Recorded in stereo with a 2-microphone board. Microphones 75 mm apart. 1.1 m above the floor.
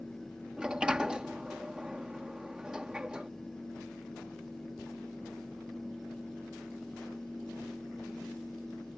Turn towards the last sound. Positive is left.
turn(degrees=-10)  # may be behind; listen again after turning